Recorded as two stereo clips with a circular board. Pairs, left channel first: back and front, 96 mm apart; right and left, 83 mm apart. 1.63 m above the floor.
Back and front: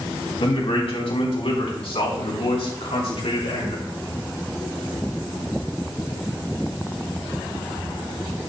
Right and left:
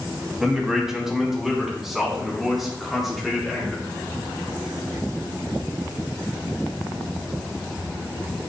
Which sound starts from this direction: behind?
A man speaking, at 0.4 s.